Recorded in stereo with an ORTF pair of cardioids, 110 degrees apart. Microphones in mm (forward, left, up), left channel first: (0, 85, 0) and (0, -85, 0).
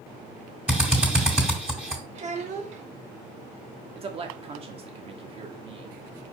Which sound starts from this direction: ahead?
A drill, at 0.7 s.